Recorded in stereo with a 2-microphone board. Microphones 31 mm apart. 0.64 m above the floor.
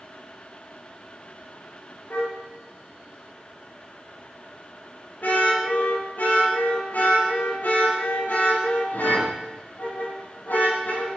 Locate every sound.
2.1 s a car horn: 70° left (ahead or behind), 6 m